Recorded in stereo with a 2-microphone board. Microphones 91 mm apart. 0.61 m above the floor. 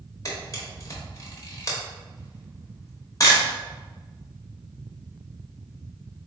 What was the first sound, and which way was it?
A camera shutter, 40° left (ahead or behind).